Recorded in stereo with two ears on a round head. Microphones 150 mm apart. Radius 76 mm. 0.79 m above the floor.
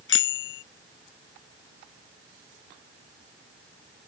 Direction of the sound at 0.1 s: 80° left.